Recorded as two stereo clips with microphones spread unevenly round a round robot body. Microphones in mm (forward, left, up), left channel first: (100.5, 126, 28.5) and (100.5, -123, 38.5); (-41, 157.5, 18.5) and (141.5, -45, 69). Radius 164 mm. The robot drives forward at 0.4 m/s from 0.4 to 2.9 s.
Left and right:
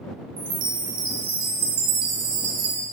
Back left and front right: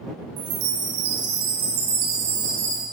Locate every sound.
0.4 s a chime: 50° right, 1.9 m; by 2.8 s 85° right, 1.5 m